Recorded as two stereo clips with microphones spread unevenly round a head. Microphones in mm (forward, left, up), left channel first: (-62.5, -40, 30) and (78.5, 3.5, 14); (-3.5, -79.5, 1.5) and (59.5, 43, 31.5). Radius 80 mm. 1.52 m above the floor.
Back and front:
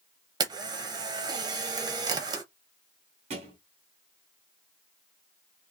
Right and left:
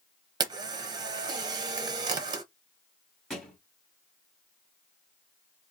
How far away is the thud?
About 1.7 m.